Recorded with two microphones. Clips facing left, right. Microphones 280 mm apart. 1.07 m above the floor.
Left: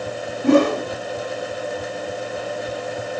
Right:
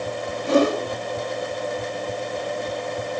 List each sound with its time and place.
0.4 s a whoosh: 75° left (ahead or behind), 3 m